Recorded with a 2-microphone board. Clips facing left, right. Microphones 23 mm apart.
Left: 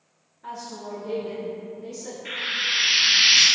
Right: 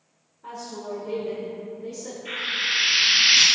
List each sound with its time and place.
0.4 s a woman speaking: 35° left (ahead or behind), 1.6 m; by 2.1 s 5° left (ahead or behind), 1.3 m
2.2 s frying: 45° left (ahead or behind), 1.6 m